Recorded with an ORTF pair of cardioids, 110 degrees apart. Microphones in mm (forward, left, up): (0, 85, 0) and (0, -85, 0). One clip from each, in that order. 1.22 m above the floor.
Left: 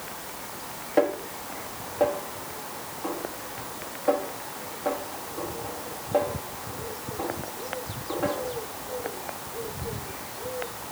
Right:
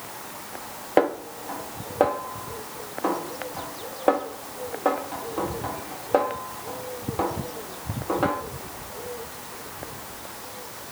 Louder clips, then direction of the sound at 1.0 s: Right 2 dB; 55° right.